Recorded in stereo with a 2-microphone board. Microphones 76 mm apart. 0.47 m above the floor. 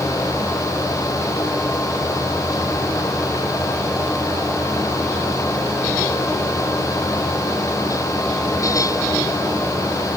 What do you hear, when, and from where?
Only background noise.